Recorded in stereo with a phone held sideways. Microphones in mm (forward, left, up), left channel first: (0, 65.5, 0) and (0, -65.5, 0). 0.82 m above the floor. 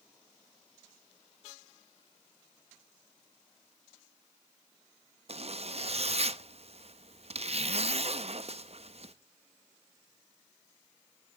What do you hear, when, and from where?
5.3 s a zipper: 50° right (ahead or behind), 0.6 m